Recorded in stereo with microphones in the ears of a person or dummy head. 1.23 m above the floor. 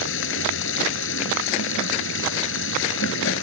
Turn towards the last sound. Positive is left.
turn(degrees=80)